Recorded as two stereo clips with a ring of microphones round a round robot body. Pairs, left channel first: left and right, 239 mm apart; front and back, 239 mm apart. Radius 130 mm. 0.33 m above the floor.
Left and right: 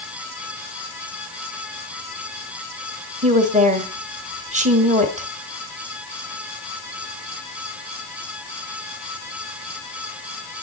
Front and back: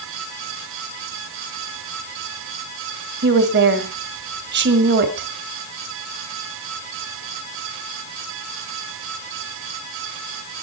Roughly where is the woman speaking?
Behind right.